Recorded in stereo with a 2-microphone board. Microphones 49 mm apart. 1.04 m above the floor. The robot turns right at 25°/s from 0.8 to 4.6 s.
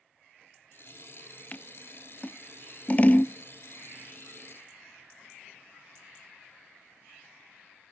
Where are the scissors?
35° left (ahead or behind), 0.5 m; by 3.3 s 25° left (ahead or behind), 0.5 m.